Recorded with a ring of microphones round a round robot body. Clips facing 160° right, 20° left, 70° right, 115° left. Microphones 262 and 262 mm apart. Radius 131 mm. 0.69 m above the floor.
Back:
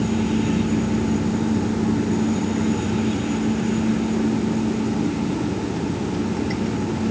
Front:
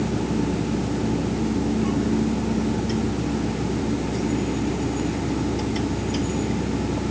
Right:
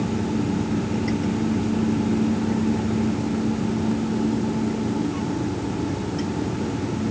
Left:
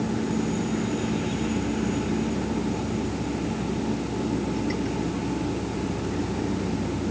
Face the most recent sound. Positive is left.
No sound to turn to.